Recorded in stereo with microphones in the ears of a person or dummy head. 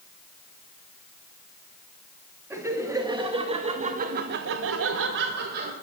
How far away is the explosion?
I don't hear an explosion.